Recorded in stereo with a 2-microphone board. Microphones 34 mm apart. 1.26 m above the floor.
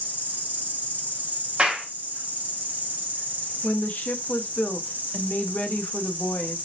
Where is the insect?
55° right (ahead or behind), 0.9 m.